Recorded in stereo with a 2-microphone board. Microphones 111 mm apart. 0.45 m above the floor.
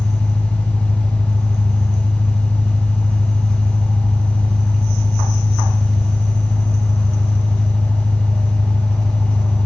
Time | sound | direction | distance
0.0 | an engine running | 5° right (ahead or behind) | 0.7 m